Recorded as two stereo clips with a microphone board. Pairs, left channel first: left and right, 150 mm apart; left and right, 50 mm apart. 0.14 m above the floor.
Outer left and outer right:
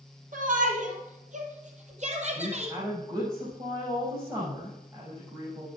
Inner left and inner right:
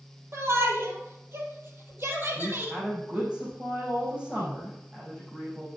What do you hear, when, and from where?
0.3 s a shout: 60° right (ahead or behind), 3.5 m; by 2.8 s 45° right (ahead or behind), 4 m
2.4 s a woman speaking: 30° right (ahead or behind), 7 m